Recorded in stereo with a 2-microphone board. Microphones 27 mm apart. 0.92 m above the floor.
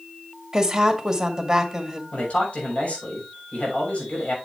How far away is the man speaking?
About 6 m.